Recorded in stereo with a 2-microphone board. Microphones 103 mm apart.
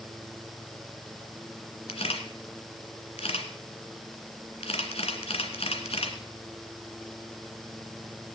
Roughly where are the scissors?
I don't hear scissors.